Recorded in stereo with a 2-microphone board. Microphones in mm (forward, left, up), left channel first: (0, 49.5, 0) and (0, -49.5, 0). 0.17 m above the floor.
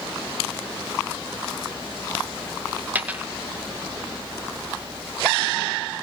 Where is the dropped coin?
15° right (ahead or behind), 3 m.